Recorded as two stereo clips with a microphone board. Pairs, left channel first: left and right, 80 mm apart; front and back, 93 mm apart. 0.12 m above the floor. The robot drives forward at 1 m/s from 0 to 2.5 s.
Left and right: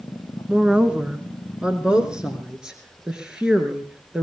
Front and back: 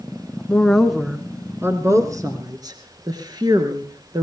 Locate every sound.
0.5 s a woman speaking: 45° right, 1.7 m; by 4.2 s 165° right, 2.5 m